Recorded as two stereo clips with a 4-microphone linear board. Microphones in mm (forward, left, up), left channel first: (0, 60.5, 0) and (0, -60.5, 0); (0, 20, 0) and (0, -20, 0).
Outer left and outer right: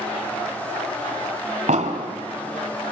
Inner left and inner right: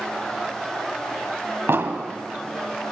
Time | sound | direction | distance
1.7 | an explosion | 85° right | 1.7 m